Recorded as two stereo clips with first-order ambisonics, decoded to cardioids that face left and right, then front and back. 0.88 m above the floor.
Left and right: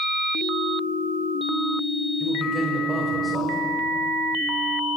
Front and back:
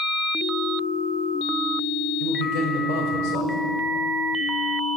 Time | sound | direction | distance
2.2 | a man speaking | straight ahead | 5 m